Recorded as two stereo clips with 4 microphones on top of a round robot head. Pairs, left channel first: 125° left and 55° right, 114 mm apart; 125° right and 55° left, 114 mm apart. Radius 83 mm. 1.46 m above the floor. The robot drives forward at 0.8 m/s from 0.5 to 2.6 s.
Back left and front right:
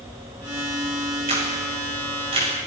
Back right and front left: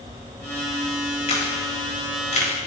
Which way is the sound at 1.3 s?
95° right.